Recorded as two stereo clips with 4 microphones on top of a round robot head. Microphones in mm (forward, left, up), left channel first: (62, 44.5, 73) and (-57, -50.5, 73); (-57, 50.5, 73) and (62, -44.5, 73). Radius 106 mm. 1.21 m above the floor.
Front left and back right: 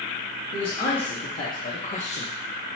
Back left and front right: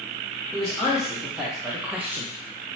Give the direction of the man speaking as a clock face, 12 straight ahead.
10 o'clock.